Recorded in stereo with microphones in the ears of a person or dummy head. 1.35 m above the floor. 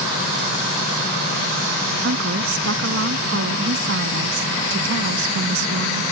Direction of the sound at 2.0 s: 75° right (ahead or behind).